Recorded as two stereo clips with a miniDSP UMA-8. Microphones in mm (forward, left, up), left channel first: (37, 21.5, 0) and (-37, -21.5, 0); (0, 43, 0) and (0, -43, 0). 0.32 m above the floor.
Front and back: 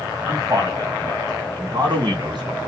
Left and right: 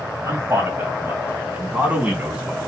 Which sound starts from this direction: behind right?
A man speaking, at 0.2 s.